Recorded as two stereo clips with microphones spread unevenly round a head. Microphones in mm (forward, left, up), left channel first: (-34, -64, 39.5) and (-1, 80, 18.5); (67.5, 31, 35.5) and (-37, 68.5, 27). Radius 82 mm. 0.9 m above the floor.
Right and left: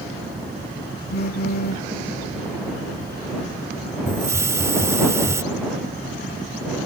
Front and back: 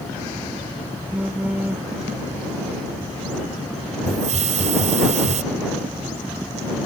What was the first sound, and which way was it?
A phone buzzing, 120° right.